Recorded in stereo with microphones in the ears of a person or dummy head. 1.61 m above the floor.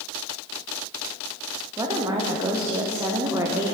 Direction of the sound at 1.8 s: 20° right (ahead or behind).